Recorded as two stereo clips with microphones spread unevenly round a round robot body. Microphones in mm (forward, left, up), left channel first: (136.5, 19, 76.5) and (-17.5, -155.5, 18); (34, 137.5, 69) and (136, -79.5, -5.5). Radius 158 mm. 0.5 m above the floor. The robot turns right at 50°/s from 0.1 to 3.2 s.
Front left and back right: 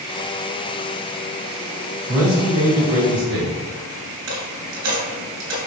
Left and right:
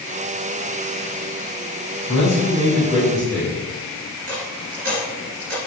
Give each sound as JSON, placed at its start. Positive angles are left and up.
{"t": 2.1, "sound": "a man speaking", "azimuth_deg": 150, "distance_m": 2.5}
{"t": 4.3, "sound": "a dropped coin", "azimuth_deg": -130, "distance_m": 2.5}